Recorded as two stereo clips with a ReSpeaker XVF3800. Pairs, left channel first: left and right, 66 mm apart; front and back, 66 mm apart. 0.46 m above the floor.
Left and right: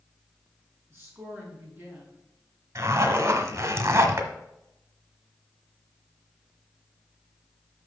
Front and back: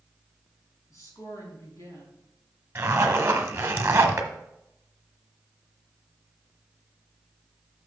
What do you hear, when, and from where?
0.9 s a woman speaking: 35° right, 3.5 m
2.8 s a zipper: 125° right, 1.1 m